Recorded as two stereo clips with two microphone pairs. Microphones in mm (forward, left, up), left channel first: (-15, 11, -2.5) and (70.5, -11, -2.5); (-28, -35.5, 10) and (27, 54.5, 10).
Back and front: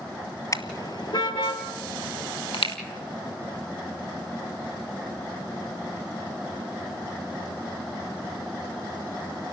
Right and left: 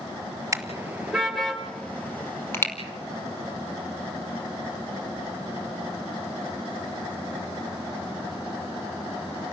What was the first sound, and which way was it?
A car horn, 120° left.